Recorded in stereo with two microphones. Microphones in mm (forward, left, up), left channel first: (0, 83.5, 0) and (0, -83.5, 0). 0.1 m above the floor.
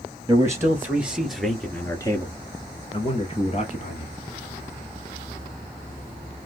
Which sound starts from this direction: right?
A man speaking, at 0.3 s.